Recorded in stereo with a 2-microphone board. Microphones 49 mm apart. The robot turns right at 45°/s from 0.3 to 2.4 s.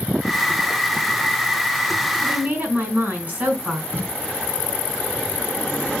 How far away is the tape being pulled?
About 1.9 m.